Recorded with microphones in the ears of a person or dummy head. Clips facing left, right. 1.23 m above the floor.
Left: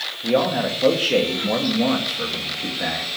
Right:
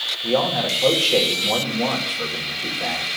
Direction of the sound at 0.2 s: 20° left (ahead or behind).